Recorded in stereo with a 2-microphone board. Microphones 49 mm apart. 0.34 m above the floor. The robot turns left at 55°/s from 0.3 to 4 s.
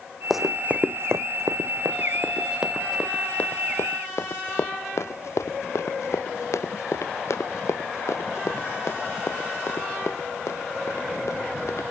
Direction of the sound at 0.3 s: Centre (ahead or behind).